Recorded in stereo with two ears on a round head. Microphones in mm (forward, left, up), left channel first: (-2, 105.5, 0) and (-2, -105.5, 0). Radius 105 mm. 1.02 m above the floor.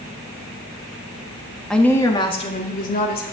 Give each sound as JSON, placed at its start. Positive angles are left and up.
{"t": 1.7, "sound": "a woman speaking", "side_deg": 0, "distance_m": 1.5}